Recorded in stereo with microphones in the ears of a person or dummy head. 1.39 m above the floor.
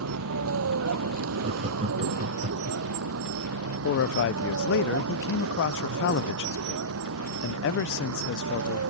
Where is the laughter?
35° right (ahead or behind).